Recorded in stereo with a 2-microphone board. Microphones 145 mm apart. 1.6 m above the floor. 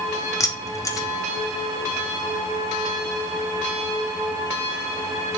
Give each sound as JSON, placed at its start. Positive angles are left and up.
{"t": 0.4, "sound": "keys jangling", "side_deg": 20, "distance_m": 0.7}